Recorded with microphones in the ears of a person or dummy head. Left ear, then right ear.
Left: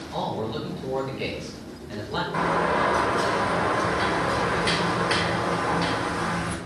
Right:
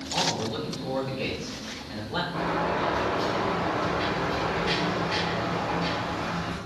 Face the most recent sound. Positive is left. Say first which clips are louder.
# left 6 dB
turn(degrees=50)  # may be behind; listen again after turning